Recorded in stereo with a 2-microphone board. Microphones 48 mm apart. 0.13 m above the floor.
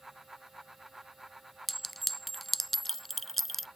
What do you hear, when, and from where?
1.7 s a clink: 5° left (ahead or behind)